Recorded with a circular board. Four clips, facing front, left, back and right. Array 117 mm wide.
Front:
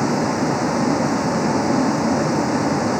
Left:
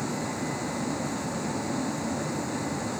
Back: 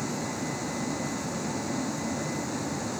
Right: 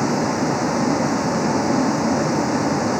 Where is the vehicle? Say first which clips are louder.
Right 11 dB, front 13 dB; 40° right.